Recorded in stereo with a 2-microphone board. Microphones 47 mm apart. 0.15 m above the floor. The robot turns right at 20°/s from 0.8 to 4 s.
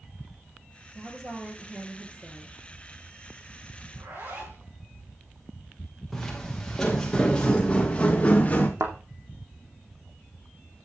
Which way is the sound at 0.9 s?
175° left.